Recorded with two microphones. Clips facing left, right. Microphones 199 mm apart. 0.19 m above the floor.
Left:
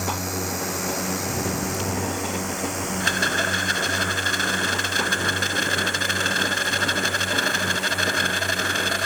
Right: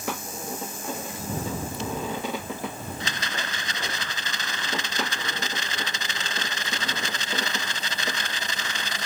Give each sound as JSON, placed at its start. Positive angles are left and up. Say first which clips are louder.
{"t": 0.0, "sound": "a drone", "louder": "left 5 dB", "side_deg": 75}
{"t": 3.0, "sound": "a rattle", "louder": "left 8 dB", "side_deg": 55}